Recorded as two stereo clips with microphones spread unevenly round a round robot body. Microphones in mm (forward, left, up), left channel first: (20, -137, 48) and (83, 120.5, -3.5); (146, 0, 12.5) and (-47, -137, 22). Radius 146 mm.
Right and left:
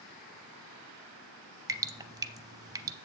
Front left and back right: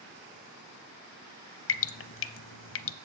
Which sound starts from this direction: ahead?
Dripping, at 1.7 s.